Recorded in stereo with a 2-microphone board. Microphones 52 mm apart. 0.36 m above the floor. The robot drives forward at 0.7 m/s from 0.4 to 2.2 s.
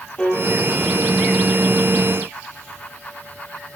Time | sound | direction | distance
0.2 | a piano | 25° left (ahead or behind) | 7 m